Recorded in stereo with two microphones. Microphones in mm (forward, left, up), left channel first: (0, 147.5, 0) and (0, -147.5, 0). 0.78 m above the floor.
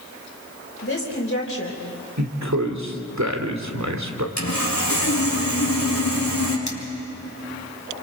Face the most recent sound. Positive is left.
turn(degrees=65)  # may be behind; listen again after turning